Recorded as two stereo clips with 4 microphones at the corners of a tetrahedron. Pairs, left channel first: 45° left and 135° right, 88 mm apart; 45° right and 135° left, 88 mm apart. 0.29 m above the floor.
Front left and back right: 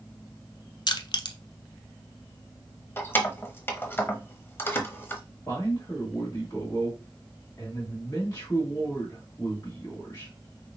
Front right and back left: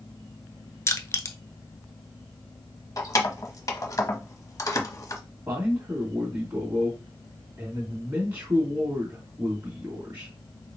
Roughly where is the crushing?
Ahead.